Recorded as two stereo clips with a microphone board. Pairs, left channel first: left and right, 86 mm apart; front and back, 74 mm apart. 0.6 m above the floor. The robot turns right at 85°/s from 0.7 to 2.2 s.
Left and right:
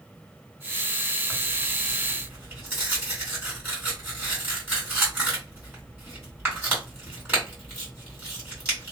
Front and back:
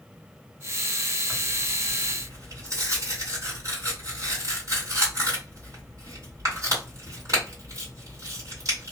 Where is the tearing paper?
130° left, 2.0 m; by 8.9 s 150° right, 2.0 m.